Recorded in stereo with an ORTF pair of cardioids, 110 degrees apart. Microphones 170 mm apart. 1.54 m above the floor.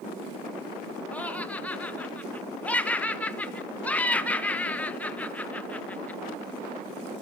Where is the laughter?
10° left, 1.0 m.